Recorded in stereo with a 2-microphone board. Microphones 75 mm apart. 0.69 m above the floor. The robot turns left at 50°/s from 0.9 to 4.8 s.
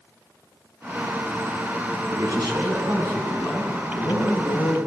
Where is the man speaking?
100° right, 5 m; by 4.8 s 125° left, 5 m.